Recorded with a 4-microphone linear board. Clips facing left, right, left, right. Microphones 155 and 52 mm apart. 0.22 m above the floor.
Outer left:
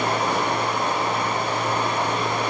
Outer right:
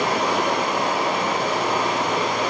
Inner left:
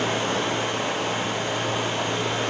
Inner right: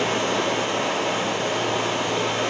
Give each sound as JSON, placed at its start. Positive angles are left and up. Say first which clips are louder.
{"t": 0.0, "sound": "running water", "louder": "outer right 2 dB, inner right 2 dB", "side_deg": -85, "distance_m": 1.4}